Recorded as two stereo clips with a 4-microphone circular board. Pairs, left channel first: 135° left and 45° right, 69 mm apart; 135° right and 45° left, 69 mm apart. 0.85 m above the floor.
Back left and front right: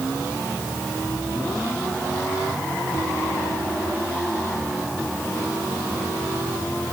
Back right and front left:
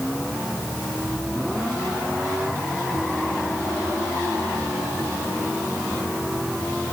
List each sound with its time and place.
Only background noise.